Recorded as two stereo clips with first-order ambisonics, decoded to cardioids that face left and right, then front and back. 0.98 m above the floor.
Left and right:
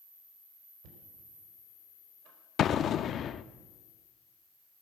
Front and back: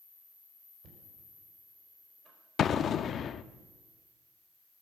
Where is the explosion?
50° left, 0.5 m.